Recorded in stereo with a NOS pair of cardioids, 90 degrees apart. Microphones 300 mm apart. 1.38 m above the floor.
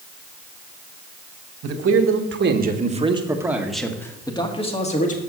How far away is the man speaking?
About 1.6 m.